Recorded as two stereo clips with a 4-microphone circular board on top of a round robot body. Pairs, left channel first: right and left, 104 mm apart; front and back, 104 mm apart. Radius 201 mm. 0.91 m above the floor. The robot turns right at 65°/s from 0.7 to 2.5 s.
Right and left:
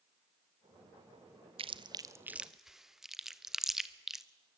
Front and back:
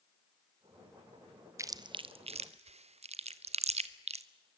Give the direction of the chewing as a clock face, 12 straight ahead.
8 o'clock.